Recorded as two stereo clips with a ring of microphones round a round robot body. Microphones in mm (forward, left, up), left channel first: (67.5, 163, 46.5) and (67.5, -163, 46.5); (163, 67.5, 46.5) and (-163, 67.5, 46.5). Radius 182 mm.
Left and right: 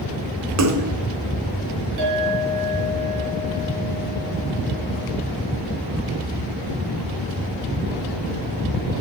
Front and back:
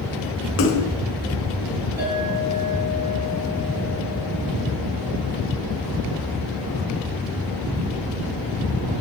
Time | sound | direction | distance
0.6 | a splash | 55° right | 1.7 m
2.0 | a clink | 95° right | 6 m